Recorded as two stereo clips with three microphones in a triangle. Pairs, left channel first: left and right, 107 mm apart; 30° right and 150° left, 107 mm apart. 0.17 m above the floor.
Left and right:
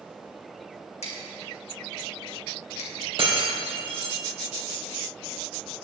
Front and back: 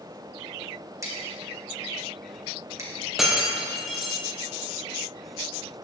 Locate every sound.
1.0 s scissors: 90° left, 3 m
3.2 s breaking glass: 125° right, 2.5 m